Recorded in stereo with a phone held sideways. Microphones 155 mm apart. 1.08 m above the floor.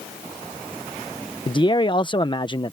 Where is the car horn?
I don't hear a car horn.